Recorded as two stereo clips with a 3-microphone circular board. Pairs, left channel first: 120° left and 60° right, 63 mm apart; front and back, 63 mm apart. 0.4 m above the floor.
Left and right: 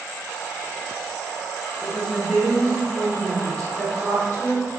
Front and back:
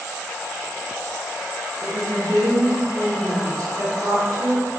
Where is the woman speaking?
170° right, 1.3 m; by 4.7 s 175° right, 3 m.